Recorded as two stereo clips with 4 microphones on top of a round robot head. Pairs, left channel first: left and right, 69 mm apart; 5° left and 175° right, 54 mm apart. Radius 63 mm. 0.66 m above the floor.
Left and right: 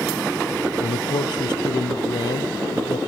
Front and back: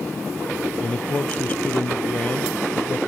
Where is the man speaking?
70° left.